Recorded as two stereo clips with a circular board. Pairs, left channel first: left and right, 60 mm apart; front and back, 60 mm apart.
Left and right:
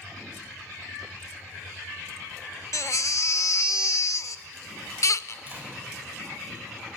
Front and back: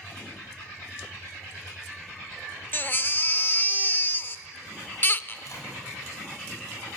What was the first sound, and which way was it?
A baby crying, 55° left.